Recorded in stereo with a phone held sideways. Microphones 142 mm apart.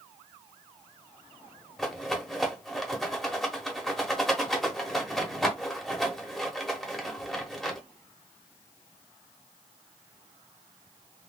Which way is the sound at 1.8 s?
Centre (ahead or behind).